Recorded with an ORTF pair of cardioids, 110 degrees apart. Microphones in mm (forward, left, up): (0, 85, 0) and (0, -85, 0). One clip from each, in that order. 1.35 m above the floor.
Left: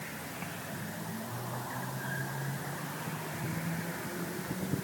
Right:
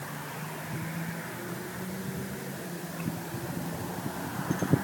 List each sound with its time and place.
Only background noise.